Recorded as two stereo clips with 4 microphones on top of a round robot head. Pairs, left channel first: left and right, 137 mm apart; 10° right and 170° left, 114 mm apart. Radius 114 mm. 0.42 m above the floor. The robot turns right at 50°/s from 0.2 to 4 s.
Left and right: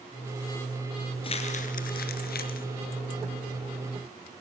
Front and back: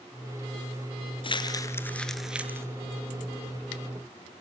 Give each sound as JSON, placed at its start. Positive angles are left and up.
{"t": 1.2, "sound": "crumpling", "azimuth_deg": 30, "distance_m": 2.0}